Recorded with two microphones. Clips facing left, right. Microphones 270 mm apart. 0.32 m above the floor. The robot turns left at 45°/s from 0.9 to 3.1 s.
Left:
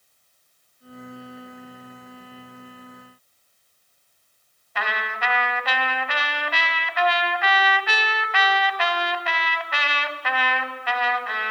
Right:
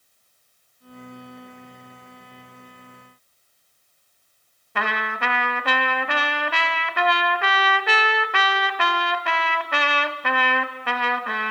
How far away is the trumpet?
About 1.2 m.